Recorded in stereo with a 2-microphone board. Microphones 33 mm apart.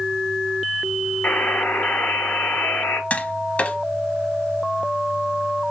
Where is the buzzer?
85° left, 1.2 m.